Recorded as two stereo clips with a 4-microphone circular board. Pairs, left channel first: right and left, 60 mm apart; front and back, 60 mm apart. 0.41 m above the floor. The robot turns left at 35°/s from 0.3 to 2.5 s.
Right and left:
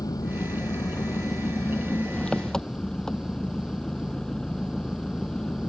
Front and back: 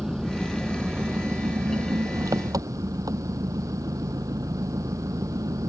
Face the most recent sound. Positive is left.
turn(degrees=-170)